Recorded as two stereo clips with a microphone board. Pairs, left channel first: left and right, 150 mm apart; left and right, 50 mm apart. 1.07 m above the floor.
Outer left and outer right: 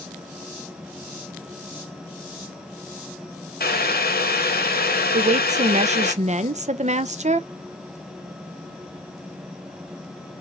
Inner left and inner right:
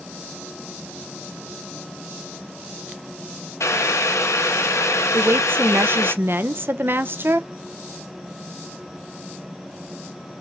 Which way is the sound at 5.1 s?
45° right (ahead or behind).